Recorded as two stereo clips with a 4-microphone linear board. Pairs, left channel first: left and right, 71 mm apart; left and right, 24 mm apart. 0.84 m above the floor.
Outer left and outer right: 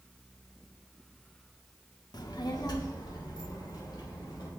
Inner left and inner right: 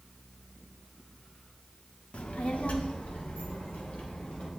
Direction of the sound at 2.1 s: 75° left (ahead or behind).